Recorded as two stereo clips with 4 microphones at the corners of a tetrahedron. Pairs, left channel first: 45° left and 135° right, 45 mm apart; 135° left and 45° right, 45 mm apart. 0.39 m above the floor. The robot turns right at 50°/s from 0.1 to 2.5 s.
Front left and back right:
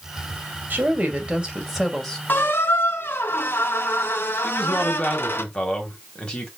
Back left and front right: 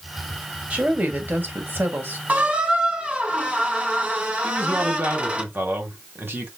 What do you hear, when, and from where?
0.7 s a woman speaking: 105° right, 2 m; by 2.2 s 30° right, 2 m
2.3 s a squeak: 5° left, 1.4 m; by 5.4 s 20° left, 1.4 m
4.4 s a man speaking: 20° right, 2.5 m